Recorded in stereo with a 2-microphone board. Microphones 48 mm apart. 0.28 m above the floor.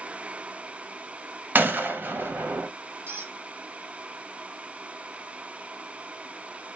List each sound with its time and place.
1.6 s a gunshot: 45° right (ahead or behind), 0.6 m
3.1 s a squeak: 50° right (ahead or behind), 1.7 m